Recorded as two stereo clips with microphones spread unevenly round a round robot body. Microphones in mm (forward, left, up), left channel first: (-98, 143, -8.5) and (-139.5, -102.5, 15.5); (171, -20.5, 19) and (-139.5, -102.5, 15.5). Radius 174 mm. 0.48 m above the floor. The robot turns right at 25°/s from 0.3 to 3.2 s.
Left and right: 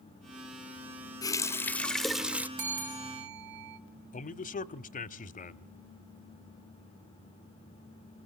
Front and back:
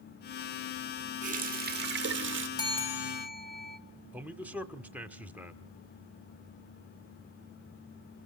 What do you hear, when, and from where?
1.2 s a running tap: 140° left, 0.5 m; by 2.5 s 175° left, 0.5 m
2.6 s a bell: 65° right, 1.7 m; by 3.8 s 50° right, 1.7 m
4.1 s a man speaking: 110° left, 0.8 m